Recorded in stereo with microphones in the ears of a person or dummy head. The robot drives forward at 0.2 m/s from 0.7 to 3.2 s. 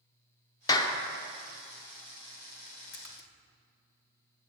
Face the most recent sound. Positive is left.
turn(degrees=60)  # may be behind; listen again after turning